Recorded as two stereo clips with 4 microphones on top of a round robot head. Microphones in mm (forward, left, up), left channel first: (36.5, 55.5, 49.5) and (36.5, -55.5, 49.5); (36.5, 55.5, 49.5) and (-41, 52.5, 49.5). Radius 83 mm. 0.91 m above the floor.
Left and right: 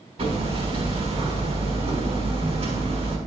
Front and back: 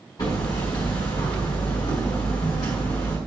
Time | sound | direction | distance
0.2 | hammering | 55° right | 5 m